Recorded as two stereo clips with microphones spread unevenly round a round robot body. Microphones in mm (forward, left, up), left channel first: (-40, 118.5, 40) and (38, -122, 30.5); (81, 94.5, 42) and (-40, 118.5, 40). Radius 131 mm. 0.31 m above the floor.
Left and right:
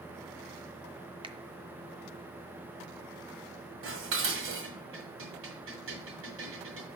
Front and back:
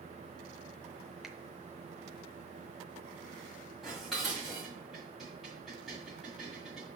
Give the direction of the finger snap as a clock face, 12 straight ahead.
4 o'clock.